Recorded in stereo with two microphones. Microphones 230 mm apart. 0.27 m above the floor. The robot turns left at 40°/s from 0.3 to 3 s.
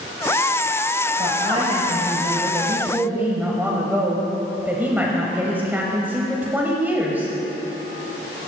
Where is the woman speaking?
25° right (ahead or behind), 1.0 m; by 7.3 s 10° right (ahead or behind), 1.0 m.